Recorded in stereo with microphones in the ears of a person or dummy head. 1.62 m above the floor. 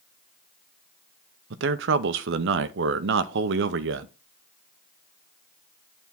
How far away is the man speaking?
About 0.6 m.